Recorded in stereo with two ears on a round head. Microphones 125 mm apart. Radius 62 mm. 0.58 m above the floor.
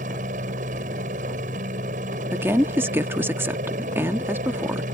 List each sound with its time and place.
0.0 s a helicopter: 60° right (ahead or behind)
2.3 s a woman speaking: 15° right (ahead or behind)